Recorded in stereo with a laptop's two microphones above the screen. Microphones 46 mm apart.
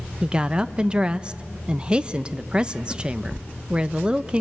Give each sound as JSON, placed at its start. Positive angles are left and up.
{"t": 0.2, "sound": "a woman speaking", "side_deg": -20, "distance_m": 0.6}